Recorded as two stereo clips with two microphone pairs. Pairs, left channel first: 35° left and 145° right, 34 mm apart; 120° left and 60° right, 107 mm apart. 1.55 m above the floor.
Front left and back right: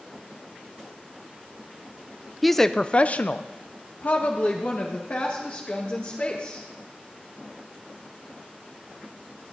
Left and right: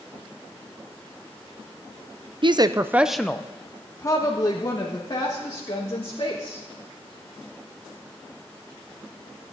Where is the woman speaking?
50° right, 0.5 m; by 6.6 s 75° left, 2.5 m.